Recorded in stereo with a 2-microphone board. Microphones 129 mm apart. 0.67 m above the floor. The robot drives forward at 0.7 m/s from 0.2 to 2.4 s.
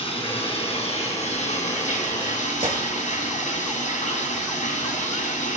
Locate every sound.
0.0 s running water: 50° left (ahead or behind), 2.5 m; by 5.6 s 85° left, 1.9 m
2.6 s a gunshot: 60° right (ahead or behind), 3.5 m